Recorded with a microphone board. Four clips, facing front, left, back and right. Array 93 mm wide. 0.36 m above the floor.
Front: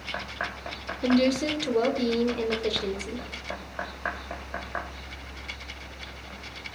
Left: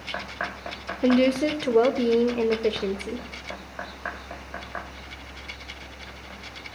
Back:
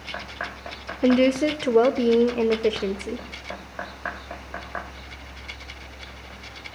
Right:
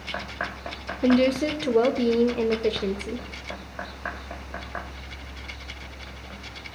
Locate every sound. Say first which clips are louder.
1.0 s a woman speaking: even, back 4 dB; 165° left, 0.9 m